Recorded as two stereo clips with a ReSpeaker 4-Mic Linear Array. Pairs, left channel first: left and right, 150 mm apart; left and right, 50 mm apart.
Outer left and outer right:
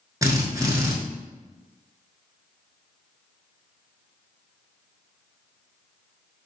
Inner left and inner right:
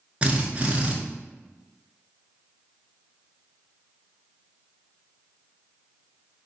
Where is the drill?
25° right (ahead or behind), 0.8 m.